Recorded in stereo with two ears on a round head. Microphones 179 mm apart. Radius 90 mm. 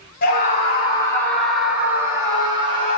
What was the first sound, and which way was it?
A scream, 45° left (ahead or behind).